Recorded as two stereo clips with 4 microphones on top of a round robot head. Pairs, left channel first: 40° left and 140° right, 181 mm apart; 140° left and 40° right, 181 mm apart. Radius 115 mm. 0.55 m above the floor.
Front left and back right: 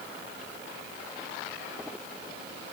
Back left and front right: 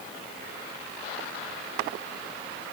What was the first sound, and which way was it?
Only background noise.